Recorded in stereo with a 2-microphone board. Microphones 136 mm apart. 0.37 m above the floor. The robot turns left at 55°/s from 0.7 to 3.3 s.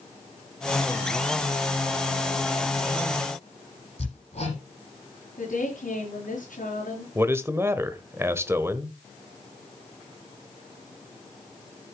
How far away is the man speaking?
About 1.2 m.